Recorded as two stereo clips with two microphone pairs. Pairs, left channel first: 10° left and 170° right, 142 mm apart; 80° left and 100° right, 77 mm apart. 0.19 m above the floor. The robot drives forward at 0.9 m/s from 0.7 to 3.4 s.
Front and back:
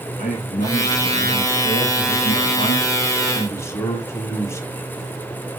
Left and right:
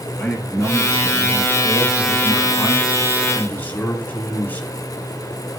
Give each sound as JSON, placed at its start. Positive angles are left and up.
{"t": 0.2, "sound": "a man speaking", "azimuth_deg": 10, "distance_m": 3.0}